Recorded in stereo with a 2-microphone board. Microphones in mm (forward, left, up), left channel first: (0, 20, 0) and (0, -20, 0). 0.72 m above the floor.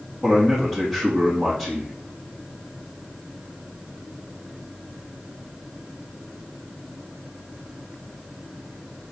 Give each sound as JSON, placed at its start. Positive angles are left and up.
{"t": 0.2, "sound": "a man speaking", "side_deg": 10, "distance_m": 1.1}